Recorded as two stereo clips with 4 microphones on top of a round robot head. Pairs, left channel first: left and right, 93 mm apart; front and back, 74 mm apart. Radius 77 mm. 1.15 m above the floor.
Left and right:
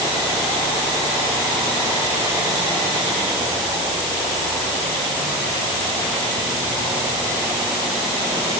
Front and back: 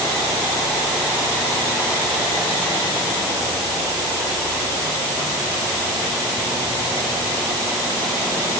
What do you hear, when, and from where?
Only background noise.